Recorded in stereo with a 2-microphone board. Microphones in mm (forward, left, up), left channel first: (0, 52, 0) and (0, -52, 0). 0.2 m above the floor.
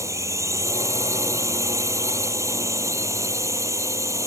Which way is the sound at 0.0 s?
30° right (ahead or behind).